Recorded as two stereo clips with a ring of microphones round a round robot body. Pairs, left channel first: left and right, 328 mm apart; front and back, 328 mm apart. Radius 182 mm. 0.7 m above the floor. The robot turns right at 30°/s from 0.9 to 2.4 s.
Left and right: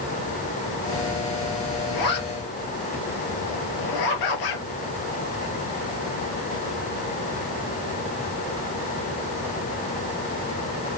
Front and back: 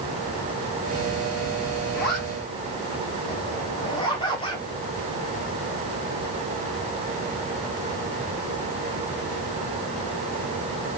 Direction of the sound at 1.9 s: 65° left.